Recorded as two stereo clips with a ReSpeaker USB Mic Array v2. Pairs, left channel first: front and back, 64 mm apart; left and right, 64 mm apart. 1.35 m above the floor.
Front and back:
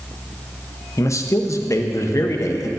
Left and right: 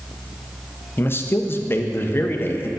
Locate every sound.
1.0 s a man speaking: 35° left, 0.6 m